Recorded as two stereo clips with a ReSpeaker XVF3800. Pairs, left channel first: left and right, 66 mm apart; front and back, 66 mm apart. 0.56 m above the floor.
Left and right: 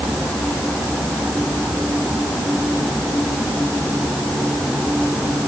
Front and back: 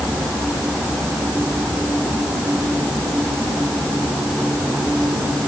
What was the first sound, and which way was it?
Only background noise.